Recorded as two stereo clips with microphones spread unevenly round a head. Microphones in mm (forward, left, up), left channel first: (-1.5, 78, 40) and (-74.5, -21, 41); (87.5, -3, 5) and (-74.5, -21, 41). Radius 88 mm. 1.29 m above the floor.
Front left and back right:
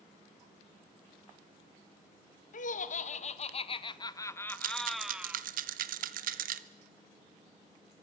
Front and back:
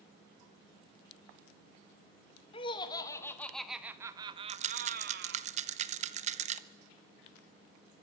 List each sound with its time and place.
2.5 s laughter: 70° left, 1.5 m; by 5.4 s 155° left, 1.4 m
4.5 s a rattle: 130° right, 0.9 m